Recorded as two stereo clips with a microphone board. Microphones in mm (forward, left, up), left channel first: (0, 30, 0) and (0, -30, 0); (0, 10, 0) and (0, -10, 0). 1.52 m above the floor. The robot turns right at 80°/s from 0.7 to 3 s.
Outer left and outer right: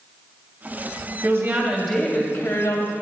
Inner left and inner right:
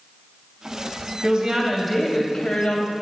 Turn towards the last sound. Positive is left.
turn(degrees=85)